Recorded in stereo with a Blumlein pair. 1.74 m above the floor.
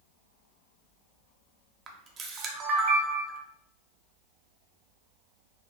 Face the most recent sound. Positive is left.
turn(degrees=-25)